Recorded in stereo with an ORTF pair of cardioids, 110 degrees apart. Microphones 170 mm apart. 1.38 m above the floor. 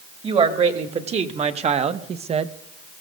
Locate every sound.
0.2 s a woman speaking: 40° right, 2 m